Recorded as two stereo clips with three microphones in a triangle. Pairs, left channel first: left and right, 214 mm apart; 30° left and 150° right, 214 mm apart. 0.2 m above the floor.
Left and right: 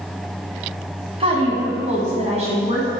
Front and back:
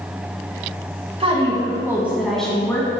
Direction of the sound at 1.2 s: 125° right.